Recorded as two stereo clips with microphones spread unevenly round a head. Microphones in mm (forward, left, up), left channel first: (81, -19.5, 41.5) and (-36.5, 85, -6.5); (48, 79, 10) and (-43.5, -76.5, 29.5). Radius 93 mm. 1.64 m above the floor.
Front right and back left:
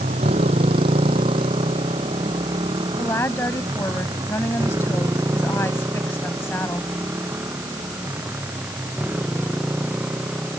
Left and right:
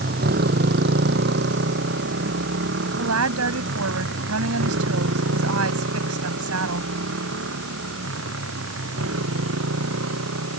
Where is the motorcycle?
160° right; by 10.6 s 140° right.